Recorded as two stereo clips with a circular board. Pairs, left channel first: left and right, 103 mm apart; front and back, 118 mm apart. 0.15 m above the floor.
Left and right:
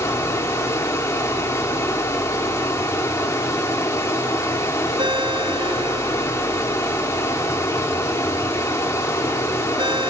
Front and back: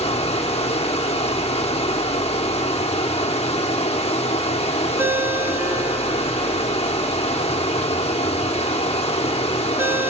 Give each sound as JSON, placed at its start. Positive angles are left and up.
{"t": 0.0, "sound": "running water", "azimuth_deg": 30, "distance_m": 2.5}
{"t": 5.0, "sound": "a ringtone", "azimuth_deg": -115, "distance_m": 0.9}